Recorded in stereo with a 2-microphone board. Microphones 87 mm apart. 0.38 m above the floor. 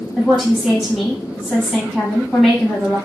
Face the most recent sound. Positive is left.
turn(degrees=-5)  # may be behind; listen again after turning